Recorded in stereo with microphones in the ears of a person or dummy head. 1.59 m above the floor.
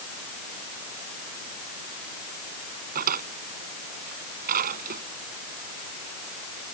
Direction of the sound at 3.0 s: 45° right (ahead or behind).